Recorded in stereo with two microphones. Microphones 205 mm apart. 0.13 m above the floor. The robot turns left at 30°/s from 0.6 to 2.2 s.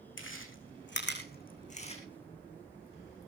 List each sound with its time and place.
0.2 s chewing: 65° left (ahead or behind), 4.5 m; by 2.0 s 25° left (ahead or behind), 4.5 m